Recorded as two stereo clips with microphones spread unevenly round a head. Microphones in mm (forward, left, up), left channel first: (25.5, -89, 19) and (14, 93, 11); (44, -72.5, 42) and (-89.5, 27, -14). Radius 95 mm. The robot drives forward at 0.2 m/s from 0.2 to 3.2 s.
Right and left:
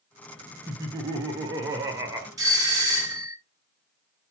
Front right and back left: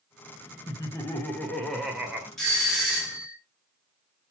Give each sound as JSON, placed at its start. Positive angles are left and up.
{"t": 0.7, "sound": "laughter", "azimuth_deg": 50, "distance_m": 0.6}
{"t": 2.4, "sound": "a doorbell", "azimuth_deg": 105, "distance_m": 1.1}